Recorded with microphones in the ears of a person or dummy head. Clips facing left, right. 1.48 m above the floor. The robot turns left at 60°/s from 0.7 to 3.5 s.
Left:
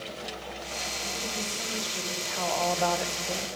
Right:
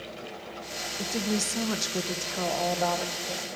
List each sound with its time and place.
1.0 s a woman speaking: 65° right, 1.0 m; by 3.5 s 145° left, 1.0 m